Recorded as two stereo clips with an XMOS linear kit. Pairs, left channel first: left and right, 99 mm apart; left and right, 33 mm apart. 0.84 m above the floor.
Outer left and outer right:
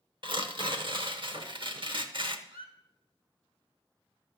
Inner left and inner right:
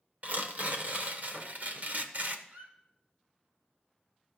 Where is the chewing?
I don't hear chewing.